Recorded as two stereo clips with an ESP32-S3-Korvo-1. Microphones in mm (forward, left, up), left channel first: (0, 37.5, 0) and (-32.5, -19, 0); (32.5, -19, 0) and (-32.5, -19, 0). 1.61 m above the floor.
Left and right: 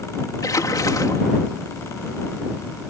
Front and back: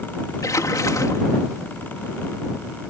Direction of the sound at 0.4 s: 35° left.